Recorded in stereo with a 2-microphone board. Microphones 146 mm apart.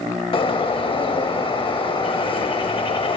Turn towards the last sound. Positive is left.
turn(degrees=35)  # may be behind; listen again after turning